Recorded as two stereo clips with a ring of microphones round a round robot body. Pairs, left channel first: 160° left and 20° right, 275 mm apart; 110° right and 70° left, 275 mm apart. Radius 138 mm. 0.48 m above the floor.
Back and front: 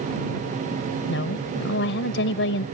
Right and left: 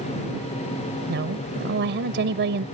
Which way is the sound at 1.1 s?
115° left.